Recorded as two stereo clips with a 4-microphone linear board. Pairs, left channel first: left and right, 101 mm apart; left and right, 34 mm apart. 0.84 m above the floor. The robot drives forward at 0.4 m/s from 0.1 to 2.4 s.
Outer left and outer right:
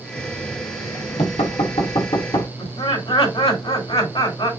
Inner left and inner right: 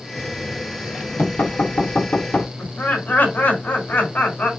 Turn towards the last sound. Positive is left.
turn(degrees=75)  # may be behind; listen again after turning